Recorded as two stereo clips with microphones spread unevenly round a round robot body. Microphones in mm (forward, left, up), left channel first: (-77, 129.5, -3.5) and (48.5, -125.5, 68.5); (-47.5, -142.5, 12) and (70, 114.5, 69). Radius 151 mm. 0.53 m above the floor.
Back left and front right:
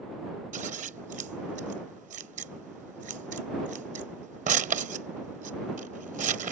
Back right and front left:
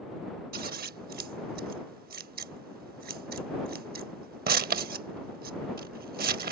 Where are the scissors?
5° left.